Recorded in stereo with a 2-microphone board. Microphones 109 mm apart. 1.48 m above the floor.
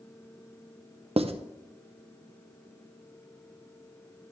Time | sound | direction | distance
1.2 | writing | 65° right (ahead or behind) | 0.6 m